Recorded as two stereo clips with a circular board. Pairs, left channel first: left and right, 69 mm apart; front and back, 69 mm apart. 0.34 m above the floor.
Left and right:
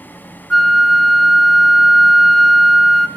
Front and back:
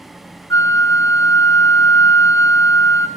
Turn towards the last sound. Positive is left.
turn(degrees=0)